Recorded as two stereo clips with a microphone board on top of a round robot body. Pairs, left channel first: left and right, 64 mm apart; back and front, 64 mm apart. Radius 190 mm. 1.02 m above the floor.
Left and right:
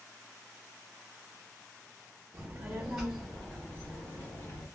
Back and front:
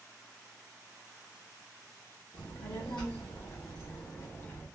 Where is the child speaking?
135° right, 0.8 m; by 4.7 s 135° left, 1.6 m.